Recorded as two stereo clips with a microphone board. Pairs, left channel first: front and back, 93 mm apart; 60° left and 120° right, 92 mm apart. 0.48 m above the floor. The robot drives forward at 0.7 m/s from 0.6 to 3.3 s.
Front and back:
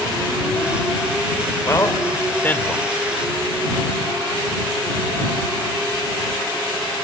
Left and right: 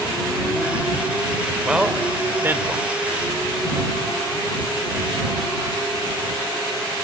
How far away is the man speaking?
About 1.6 m.